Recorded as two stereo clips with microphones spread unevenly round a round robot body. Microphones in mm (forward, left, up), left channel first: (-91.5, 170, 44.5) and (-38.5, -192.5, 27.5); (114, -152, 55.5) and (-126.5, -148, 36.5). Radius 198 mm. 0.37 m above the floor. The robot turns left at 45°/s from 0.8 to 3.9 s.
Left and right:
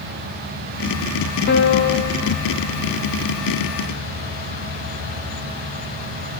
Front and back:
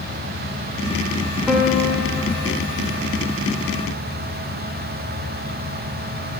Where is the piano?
100° left, 0.6 m; by 2.1 s 70° left, 0.6 m.